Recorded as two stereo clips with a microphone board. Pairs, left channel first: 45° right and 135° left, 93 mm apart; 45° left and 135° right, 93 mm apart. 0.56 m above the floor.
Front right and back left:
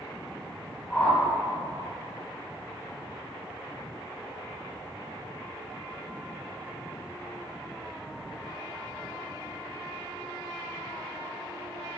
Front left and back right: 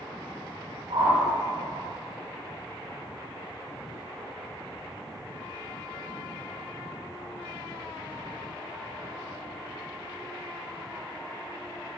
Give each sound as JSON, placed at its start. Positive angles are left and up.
{"t": 0.9, "sound": "a whoosh", "azimuth_deg": -120, "distance_m": 2.5}